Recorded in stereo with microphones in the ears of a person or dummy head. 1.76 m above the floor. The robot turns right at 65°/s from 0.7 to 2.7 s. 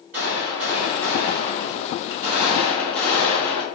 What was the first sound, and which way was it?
A gunshot, 120° right.